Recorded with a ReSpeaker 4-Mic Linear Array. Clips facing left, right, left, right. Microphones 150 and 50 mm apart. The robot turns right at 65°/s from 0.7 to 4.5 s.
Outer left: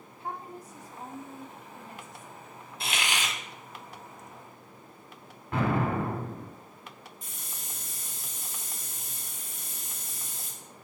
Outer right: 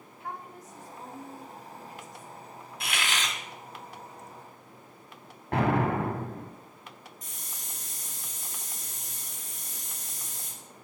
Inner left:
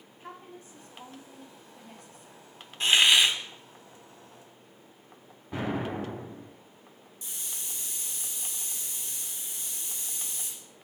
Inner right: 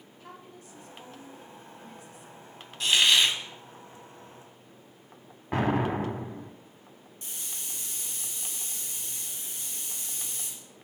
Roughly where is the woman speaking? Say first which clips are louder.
Outer left 2 dB, inner left 3 dB; ahead left.